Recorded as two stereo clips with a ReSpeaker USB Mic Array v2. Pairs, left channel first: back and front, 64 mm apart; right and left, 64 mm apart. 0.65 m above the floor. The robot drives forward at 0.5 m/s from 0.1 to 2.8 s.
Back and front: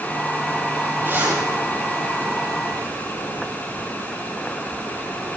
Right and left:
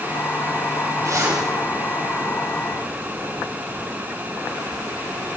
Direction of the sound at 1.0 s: 55° left.